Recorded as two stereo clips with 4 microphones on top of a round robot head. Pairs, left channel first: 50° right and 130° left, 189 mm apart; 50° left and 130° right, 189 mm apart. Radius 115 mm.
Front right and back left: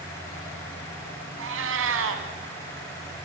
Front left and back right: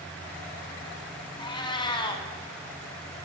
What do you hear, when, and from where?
1.4 s a cat meowing: 115° left, 2 m